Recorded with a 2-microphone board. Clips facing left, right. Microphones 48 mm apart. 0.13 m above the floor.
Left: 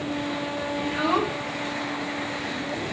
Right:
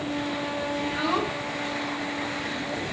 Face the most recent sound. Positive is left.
turn(degrees=5)  # may be behind; listen again after turning